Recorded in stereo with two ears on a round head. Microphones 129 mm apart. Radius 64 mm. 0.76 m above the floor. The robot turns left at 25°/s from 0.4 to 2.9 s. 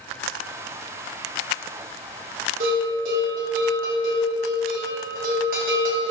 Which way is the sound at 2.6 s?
70° right (ahead or behind).